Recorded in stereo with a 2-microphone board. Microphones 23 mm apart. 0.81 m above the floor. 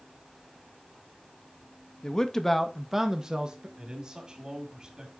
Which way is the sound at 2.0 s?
30° left (ahead or behind).